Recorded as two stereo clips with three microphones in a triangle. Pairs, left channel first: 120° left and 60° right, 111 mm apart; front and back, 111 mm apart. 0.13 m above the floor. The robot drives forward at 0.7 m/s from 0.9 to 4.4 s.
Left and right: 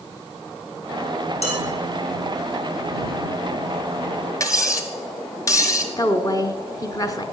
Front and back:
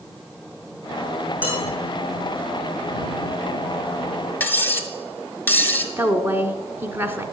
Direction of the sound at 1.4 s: 105° left.